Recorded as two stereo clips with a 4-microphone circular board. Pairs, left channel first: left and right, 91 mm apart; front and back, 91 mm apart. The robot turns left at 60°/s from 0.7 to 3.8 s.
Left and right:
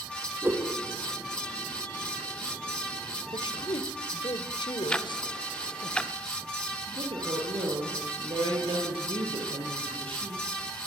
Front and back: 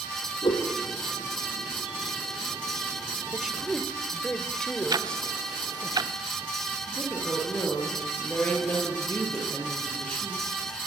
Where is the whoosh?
20° right, 5 m.